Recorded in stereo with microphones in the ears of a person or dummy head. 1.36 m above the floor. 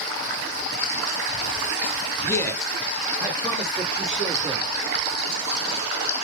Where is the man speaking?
15° left (ahead or behind), 0.5 m; by 4.6 s 20° left (ahead or behind), 1.6 m.